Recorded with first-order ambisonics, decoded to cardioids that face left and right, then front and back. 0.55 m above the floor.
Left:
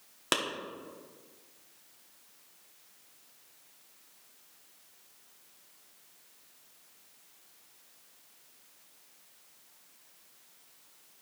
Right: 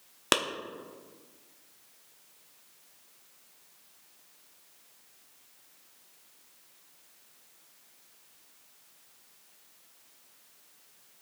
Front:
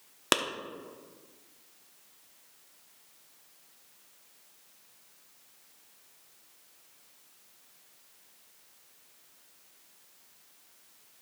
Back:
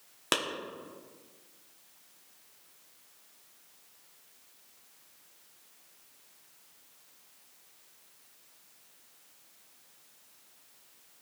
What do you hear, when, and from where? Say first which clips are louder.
0.3 s a clap: right 4 dB, front 3 dB; 45° right, 0.7 m